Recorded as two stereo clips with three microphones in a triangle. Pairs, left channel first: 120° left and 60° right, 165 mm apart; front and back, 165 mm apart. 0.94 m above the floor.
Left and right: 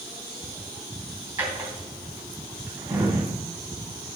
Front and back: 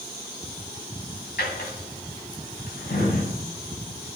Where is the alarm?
I don't hear an alarm.